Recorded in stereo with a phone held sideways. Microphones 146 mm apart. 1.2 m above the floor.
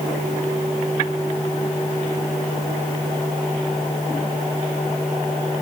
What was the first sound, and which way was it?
Only background noise.